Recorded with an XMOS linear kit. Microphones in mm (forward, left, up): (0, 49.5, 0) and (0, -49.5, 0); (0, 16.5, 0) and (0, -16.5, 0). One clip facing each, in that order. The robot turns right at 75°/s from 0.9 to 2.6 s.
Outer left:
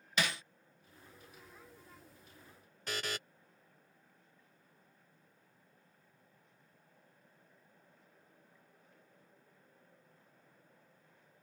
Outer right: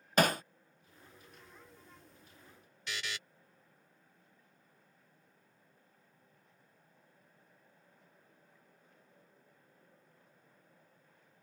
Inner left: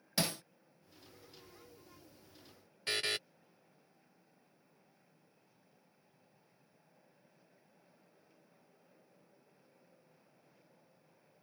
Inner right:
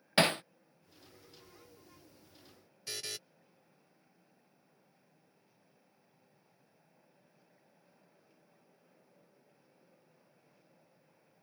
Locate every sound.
0.2 s hammering: 45° right (ahead or behind)
2.9 s a buzzer: 40° left (ahead or behind)